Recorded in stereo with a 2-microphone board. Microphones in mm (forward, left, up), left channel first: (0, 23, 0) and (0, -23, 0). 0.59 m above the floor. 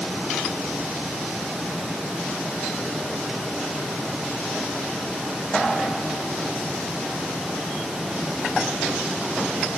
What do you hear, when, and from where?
Only background noise.